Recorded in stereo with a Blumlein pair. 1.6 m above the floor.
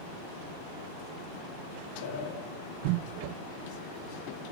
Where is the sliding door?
50° left, 2.5 m.